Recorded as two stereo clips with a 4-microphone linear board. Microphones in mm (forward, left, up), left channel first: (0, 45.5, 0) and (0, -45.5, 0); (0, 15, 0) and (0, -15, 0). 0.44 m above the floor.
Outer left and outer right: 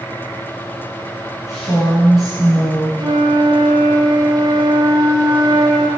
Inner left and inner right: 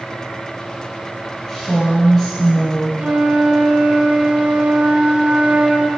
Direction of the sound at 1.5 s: 30° left (ahead or behind).